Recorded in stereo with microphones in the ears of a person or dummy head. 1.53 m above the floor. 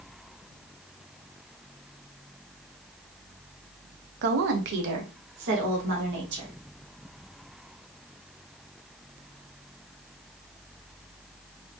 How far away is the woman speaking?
About 0.6 m.